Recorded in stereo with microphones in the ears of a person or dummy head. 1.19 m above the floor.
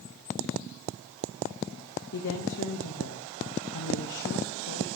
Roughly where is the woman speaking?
Left.